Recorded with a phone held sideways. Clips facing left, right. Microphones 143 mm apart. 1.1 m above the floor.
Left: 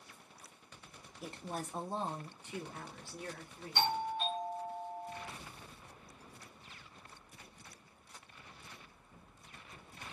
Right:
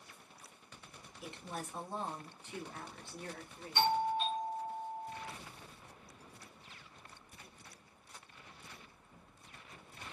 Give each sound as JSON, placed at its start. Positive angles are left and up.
{"t": 1.2, "sound": "a woman speaking", "side_deg": 40, "distance_m": 0.6}
{"t": 3.8, "sound": "a doorbell", "side_deg": 45, "distance_m": 1.5}